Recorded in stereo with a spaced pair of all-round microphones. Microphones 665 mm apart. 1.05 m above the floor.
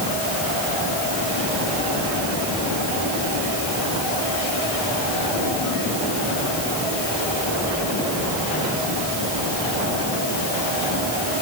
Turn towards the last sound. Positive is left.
No sound to turn to.